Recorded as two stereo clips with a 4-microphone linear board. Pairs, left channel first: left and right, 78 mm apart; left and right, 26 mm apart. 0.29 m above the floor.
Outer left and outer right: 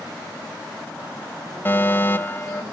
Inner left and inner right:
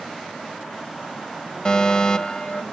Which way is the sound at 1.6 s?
30° left (ahead or behind).